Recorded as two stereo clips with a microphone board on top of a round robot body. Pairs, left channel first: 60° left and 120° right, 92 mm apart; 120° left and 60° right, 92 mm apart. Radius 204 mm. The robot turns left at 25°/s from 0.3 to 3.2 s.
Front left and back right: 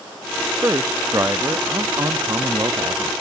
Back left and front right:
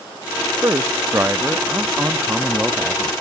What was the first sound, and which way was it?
A man speaking, 80° right.